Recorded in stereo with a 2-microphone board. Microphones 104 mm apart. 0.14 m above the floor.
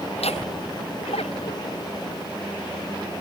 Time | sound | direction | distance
0.1 | laughter | 85° left | ?